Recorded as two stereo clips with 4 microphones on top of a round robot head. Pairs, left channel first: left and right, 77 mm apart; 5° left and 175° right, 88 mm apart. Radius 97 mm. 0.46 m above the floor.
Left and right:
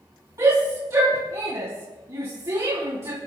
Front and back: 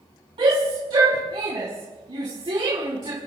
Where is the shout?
145° right, 4.5 m.